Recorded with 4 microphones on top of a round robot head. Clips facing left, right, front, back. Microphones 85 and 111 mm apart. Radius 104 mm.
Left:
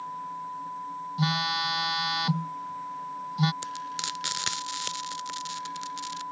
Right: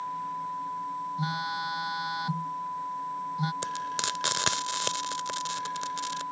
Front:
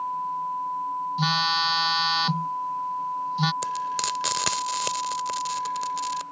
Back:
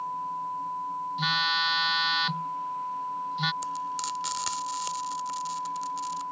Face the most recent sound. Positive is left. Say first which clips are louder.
# right 3 dB, front 4 dB
turn(degrees=-35)